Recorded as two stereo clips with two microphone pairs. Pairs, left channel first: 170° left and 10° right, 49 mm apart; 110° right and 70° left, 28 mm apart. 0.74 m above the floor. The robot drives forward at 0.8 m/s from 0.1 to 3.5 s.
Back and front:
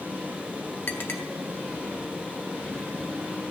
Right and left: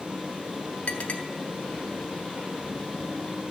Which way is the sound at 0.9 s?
145° right.